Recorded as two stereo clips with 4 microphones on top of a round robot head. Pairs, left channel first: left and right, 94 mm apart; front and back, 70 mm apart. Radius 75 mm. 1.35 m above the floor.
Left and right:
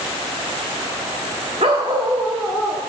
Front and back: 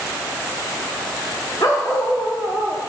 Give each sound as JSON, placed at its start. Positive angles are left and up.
{"t": 1.6, "sound": "a dog barking", "azimuth_deg": -55, "distance_m": 1.0}